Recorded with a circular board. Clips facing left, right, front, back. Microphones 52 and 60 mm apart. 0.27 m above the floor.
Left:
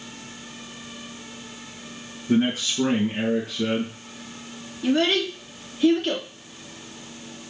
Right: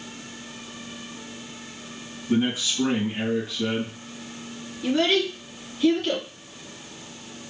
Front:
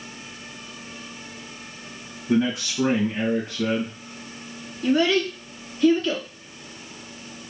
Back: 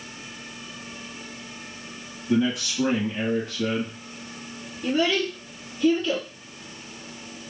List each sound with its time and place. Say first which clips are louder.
2.3 s a man speaking: left 2 dB, front 1 dB; 60° left, 3 m
4.8 s a child speaking: left 1 dB, front 3 dB; 25° left, 2 m